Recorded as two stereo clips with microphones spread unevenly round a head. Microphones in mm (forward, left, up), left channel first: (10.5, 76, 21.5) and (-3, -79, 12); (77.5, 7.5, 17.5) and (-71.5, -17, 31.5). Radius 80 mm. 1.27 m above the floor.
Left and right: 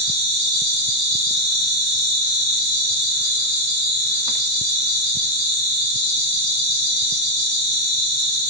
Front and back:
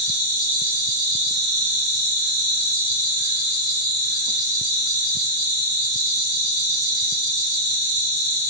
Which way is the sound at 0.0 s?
95° right.